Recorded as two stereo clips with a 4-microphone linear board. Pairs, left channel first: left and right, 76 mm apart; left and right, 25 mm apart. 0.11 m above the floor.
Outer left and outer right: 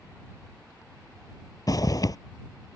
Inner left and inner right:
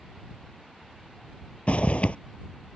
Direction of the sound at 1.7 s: 50° left (ahead or behind).